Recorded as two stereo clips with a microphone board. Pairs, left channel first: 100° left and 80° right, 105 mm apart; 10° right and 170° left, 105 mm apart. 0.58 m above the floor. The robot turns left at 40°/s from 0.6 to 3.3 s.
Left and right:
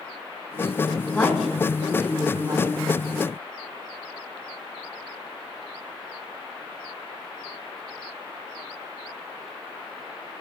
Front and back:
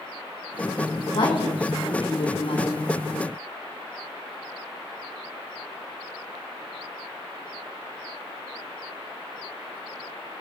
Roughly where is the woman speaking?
Ahead.